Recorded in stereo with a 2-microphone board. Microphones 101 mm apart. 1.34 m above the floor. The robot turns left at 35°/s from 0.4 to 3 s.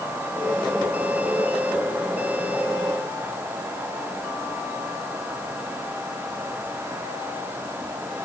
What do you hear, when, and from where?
Only background noise.